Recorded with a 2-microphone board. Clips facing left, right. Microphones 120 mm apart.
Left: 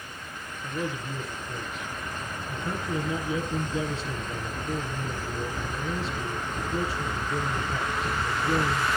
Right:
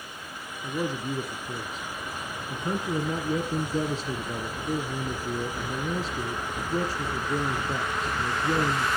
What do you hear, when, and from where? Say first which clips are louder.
0.6 s a man speaking: right 3 dB; 40° right (ahead or behind), 1.9 m